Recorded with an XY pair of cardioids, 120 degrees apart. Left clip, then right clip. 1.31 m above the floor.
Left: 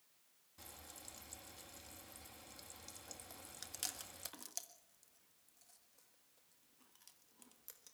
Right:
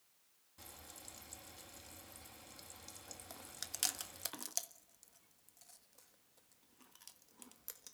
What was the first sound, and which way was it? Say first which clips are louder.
Frying: right 1 dB; 5° right.